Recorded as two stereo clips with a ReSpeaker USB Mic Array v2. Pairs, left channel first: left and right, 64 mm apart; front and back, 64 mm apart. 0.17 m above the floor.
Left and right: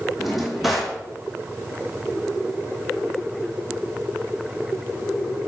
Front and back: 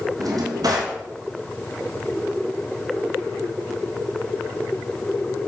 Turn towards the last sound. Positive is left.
turn(degrees=180)